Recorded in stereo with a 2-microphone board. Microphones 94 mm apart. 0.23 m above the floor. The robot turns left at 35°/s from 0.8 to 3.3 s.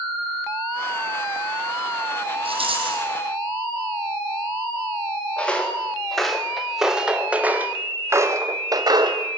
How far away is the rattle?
About 4.5 m.